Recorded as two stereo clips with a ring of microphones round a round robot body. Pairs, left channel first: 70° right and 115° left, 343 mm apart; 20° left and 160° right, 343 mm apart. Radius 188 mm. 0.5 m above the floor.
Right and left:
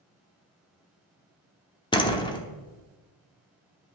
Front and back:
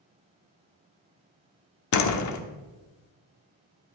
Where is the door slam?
5° left, 1.0 m.